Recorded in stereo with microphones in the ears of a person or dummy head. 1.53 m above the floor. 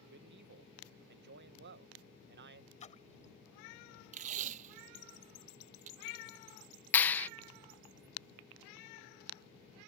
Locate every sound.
0.1 s a man speaking: 60° right (ahead or behind)
2.8 s a splash: 30° left (ahead or behind)
4.1 s tape being pulled: 40° right (ahead or behind)
6.9 s a clap: 10° left (ahead or behind)